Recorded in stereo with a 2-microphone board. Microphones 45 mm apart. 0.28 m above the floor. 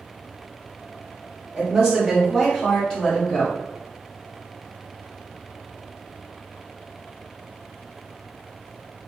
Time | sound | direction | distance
1.5 | a woman speaking | 15° right (ahead or behind) | 1.8 m